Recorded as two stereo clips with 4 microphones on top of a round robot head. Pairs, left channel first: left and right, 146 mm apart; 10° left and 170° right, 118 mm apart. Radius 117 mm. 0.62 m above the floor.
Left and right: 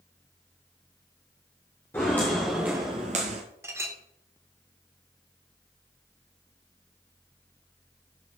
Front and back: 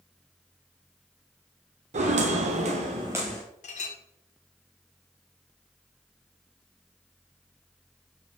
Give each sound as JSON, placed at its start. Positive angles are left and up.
{"t": 1.9, "sound": "footsteps", "azimuth_deg": 170, "distance_m": 1.5}
{"t": 3.6, "sound": "a clink", "azimuth_deg": -15, "distance_m": 1.1}